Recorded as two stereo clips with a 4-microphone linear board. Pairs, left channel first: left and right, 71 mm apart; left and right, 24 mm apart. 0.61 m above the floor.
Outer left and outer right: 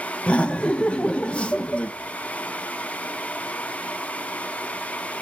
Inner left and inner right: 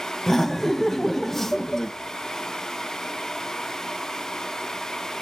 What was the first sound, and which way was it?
Laughter, 15° left (ahead or behind).